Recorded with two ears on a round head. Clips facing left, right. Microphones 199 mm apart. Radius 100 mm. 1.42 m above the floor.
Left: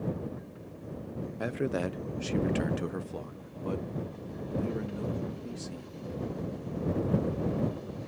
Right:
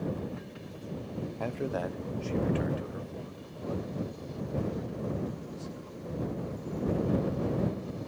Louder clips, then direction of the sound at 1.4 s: Left 3 dB; 15° left (ahead or behind).